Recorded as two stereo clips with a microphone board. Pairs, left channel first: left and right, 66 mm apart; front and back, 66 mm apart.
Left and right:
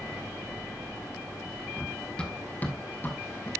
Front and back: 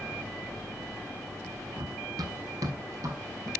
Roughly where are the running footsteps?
Behind.